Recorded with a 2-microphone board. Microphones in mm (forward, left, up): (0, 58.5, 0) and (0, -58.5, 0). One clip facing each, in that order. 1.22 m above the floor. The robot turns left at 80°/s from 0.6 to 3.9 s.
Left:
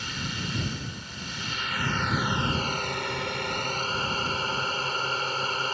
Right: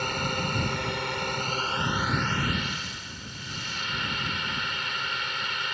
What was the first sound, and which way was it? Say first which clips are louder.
A drone: right 6 dB; 60° right.